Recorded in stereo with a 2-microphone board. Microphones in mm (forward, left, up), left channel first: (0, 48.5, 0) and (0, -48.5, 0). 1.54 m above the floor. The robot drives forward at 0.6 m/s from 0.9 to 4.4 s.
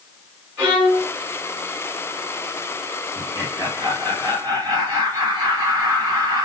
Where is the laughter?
40° right (ahead or behind), 2.5 m; by 6.5 s 55° right (ahead or behind), 2.0 m.